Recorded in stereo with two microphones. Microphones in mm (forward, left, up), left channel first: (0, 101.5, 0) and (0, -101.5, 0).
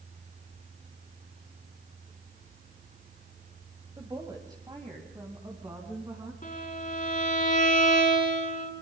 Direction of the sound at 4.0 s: 20° right (ahead or behind).